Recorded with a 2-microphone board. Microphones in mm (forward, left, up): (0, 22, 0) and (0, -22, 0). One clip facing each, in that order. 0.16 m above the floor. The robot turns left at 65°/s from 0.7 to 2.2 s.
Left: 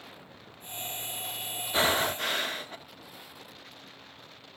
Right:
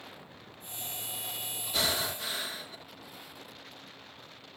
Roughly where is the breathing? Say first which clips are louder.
Left 6 dB; behind left.